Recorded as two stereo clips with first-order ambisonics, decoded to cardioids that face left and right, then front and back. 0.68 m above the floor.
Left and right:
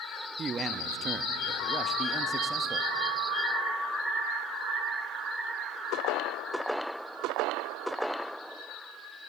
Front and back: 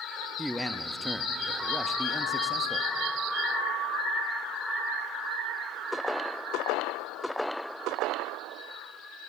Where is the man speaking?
100° right, 0.8 m.